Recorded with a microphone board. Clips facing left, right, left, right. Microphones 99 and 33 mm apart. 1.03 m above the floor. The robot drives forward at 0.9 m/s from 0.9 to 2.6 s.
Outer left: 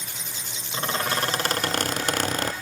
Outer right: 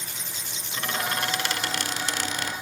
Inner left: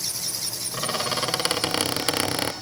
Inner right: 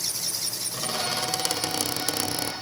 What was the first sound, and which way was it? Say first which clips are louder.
A squeak: outer left 3 dB, inner left 3 dB; 30° left (ahead or behind).